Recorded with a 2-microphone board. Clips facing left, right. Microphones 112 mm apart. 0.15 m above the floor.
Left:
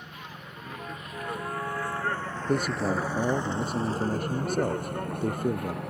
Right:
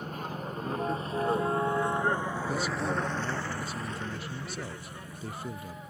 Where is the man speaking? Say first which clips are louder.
Left 7 dB; 50° left (ahead or behind).